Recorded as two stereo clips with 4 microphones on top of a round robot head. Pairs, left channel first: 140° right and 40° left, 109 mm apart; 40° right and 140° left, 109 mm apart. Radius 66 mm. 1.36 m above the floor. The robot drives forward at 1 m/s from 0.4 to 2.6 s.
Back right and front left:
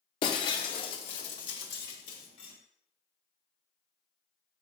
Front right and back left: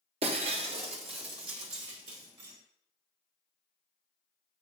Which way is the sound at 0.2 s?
175° left.